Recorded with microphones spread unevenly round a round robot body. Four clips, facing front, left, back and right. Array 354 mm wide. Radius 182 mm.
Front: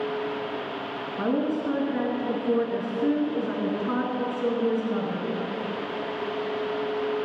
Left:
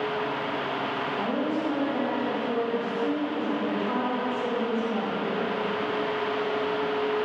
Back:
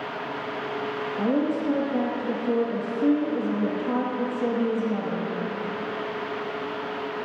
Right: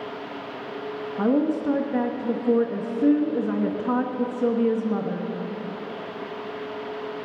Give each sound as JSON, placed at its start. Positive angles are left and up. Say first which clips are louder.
{"t": 1.2, "sound": "a woman speaking", "louder": "right 8 dB, back 1 dB", "azimuth_deg": -100, "distance_m": 1.3}